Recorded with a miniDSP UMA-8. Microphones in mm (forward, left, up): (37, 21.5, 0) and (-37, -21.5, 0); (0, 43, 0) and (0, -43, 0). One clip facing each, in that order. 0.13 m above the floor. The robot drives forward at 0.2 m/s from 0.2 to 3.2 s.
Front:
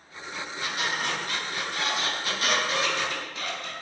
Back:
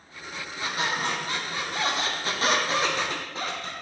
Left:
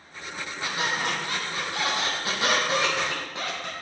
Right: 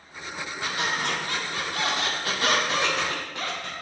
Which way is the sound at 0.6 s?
150° left.